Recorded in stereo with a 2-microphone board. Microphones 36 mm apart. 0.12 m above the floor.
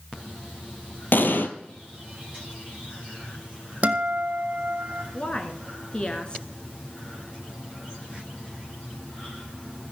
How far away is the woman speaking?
About 1.5 m.